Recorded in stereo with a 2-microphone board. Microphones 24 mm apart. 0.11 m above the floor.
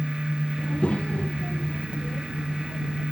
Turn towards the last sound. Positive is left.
turn(degrees=75)  # may be behind; listen again after turning